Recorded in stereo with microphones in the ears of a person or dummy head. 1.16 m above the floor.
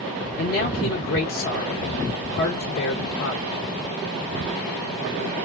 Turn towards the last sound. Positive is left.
turn(degrees=70)  # may be behind; listen again after turning